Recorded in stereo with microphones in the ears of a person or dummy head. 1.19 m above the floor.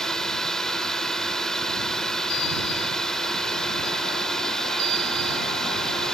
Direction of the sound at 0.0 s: Centre (ahead or behind).